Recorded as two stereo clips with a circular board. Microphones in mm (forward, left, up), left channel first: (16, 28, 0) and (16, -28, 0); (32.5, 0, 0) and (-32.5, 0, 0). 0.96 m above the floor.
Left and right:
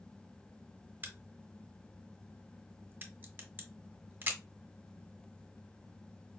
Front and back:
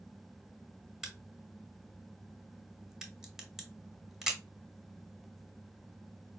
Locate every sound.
1.0 s a crack: 100° right, 0.8 m